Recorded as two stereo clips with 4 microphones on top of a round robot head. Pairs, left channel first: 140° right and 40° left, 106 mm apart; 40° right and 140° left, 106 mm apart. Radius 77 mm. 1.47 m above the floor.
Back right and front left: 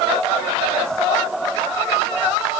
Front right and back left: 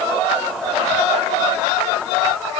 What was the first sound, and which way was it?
Only background noise.